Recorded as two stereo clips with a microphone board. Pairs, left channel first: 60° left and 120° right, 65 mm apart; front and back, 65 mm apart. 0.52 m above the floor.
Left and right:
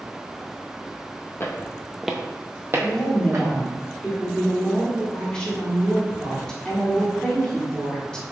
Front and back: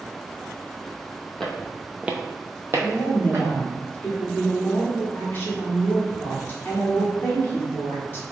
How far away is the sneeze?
No sneeze in this recording.